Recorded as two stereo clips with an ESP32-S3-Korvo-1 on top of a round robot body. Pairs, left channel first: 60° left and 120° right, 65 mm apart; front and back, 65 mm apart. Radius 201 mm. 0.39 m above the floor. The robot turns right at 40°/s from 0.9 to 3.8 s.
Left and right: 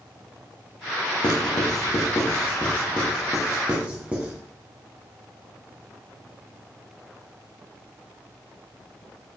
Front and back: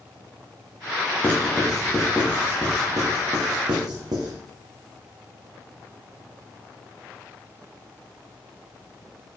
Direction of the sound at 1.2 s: 65° left.